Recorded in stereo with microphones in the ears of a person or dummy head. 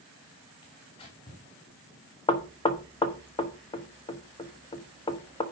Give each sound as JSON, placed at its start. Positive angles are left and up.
{"t": 0.6, "sound": "tearing paper", "side_deg": 25, "distance_m": 3.0}
{"t": 2.3, "sound": "knocking", "side_deg": 20, "distance_m": 1.1}